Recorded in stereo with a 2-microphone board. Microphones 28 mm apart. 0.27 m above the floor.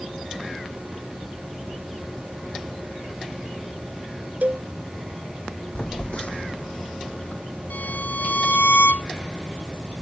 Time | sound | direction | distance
4.4 | a cowbell | 70° right (ahead or behind) | ?
5.8 | a phone buzzing | 40° left (ahead or behind) | ?
7.7 | a violin | 75° left (ahead or behind) | ?